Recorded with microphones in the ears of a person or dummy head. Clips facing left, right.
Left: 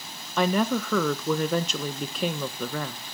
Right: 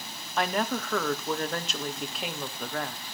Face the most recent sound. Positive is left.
turn(degrees=75)  # may be behind; listen again after turning